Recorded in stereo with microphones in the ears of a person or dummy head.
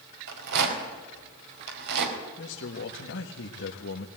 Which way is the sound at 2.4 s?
60° left (ahead or behind).